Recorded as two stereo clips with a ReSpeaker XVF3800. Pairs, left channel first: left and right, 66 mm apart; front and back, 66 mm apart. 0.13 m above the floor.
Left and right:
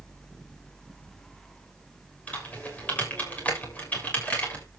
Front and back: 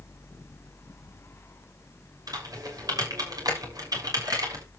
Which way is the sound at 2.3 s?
155° left.